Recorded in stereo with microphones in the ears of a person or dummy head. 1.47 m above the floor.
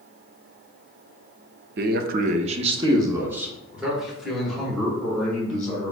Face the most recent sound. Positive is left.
turn(degrees=10)  # may be behind; listen again after turning